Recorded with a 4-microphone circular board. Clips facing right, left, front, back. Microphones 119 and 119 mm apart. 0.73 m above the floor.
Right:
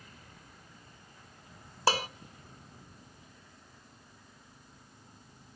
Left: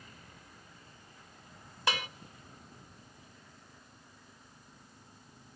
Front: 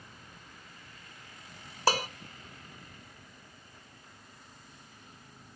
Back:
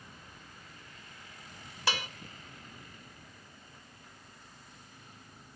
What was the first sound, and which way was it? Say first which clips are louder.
Dishes clattering: right 6 dB, front 7 dB; 40° right.